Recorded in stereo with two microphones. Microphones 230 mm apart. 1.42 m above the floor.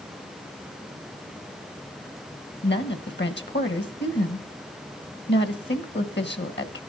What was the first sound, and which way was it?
A woman speaking, 50° left (ahead or behind).